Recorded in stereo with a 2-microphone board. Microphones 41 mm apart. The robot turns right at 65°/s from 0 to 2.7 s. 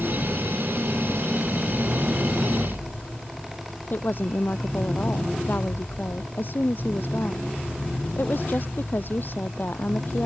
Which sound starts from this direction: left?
A woman speaking, at 3.9 s.